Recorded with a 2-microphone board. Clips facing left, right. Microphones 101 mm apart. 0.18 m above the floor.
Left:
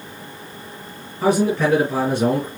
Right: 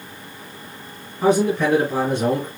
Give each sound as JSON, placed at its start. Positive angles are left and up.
{"t": 1.2, "sound": "a man speaking", "side_deg": 10, "distance_m": 2.5}